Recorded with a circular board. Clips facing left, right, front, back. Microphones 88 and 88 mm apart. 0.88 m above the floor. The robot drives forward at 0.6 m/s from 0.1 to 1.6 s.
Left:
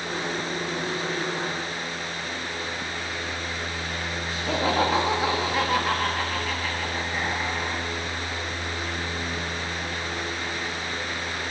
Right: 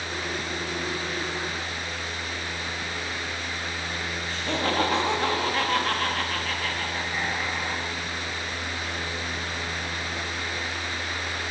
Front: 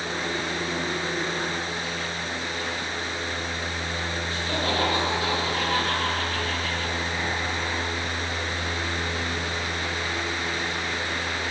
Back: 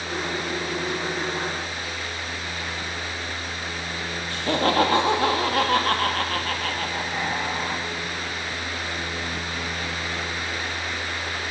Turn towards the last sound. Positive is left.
turn(degrees=175)